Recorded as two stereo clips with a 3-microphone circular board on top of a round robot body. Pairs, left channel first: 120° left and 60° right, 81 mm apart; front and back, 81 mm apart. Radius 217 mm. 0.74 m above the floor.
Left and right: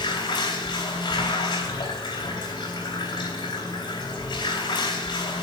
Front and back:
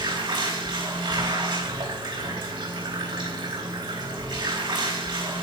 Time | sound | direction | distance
0.0 | running water | 155° left | 4 m